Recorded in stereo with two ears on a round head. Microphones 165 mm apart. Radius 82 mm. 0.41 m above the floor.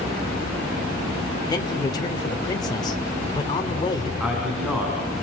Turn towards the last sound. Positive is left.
turn(degrees=-5)  # may be behind; listen again after turning